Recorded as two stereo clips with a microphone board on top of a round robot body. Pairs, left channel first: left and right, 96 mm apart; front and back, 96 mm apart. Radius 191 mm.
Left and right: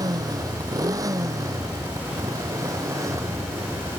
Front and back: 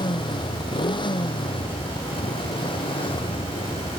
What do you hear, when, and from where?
0.0 s a motorcycle: 40° right; by 4.0 s 30° right